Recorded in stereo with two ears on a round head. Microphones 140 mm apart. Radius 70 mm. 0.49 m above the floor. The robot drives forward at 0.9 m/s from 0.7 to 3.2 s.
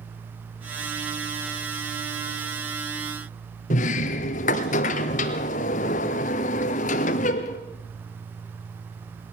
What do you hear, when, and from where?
3.7 s a sliding door: 55° left (ahead or behind), 1.5 m